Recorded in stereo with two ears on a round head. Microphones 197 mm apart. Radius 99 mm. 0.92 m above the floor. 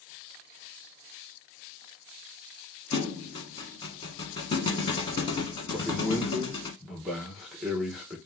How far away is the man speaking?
About 0.9 m.